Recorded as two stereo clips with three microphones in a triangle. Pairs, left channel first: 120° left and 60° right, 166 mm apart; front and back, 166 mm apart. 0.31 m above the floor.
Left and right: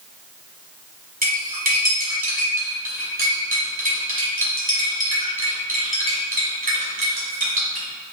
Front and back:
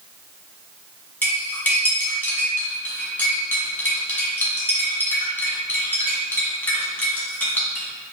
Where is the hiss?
I don't hear a hiss.